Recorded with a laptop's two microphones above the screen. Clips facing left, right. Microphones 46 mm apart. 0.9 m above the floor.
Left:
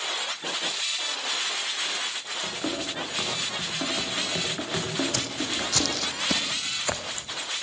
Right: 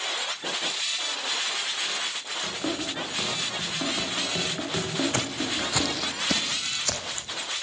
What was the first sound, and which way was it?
Running footsteps, 5° left (ahead or behind).